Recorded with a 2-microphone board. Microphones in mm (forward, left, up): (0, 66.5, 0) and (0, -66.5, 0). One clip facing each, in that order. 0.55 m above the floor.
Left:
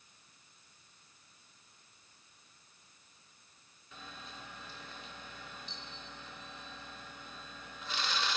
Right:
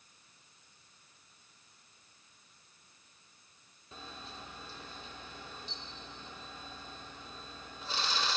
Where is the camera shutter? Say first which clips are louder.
Right 2 dB; 35° right (ahead or behind), 1.1 m.